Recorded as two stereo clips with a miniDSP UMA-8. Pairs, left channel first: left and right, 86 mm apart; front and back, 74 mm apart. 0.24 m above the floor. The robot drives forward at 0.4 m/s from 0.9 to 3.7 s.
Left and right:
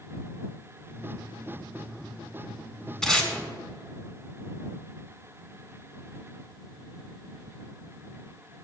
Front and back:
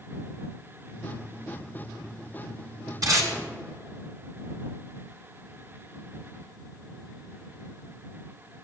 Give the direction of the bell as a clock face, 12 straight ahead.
I don't hear a bell.